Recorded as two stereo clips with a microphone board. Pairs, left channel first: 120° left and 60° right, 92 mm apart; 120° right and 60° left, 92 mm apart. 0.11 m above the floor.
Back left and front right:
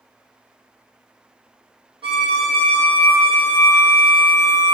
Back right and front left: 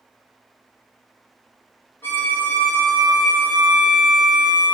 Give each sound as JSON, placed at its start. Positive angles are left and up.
{"t": 2.0, "sound": "a violin", "azimuth_deg": -55, "distance_m": 0.9}